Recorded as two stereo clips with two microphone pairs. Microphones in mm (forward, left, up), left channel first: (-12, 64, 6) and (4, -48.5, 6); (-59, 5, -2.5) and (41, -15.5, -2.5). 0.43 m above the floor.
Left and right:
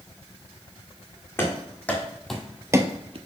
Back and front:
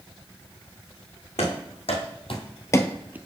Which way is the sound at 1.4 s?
170° left.